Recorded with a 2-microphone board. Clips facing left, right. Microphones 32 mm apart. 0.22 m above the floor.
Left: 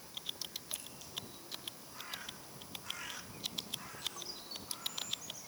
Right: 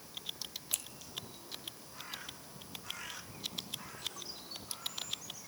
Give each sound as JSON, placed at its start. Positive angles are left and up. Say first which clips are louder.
{"t": 0.7, "sound": "scissors", "louder": "right 6 dB", "side_deg": -80, "distance_m": 1.0}